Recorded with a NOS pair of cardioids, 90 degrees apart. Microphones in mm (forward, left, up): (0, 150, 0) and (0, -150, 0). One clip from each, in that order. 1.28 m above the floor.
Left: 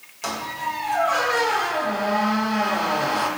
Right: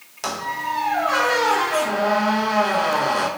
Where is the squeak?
15° right, 0.7 m.